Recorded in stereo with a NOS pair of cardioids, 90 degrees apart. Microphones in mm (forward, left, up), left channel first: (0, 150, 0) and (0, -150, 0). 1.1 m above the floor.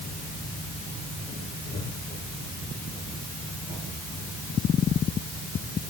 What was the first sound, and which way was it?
Only background noise.